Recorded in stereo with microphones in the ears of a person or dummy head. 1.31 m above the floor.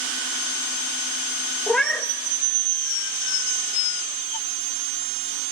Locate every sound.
1.7 s a cat meowing: centre (ahead or behind), 0.9 m